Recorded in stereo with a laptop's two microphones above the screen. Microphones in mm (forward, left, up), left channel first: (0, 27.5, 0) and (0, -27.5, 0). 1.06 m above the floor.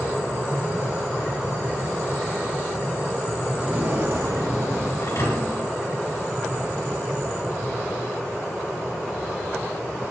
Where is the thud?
75° left (ahead or behind), 3 m.